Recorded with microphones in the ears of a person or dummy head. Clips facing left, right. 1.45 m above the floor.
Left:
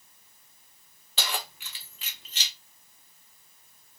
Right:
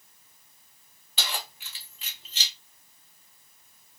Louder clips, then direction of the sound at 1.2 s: Left 2 dB; 35° left (ahead or behind).